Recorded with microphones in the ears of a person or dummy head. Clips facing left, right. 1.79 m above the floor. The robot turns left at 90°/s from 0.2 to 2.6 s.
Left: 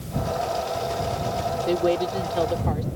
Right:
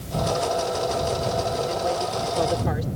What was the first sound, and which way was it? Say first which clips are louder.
A woman speaking: left 4 dB; 75° left.